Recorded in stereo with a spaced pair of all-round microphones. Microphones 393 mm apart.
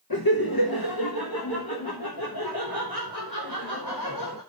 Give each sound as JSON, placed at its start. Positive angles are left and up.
{"t": 0.1, "sound": "laughter", "side_deg": 60, "distance_m": 1.4}